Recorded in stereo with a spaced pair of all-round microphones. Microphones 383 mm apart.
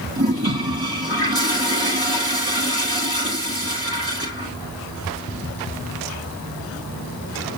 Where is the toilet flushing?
70° right (ahead or behind), 4 m.